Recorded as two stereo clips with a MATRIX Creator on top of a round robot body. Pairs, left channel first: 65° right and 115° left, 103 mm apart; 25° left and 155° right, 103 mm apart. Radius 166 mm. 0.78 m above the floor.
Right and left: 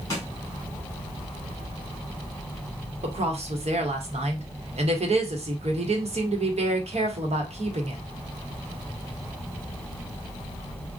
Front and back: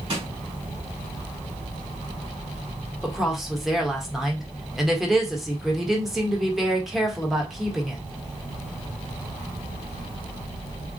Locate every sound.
0.1 s a snare drum: 130° right, 2 m
3.0 s a woman speaking: 115° left, 1.2 m